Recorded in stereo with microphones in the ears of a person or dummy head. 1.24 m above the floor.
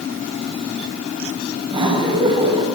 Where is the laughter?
25° right (ahead or behind), 8 m.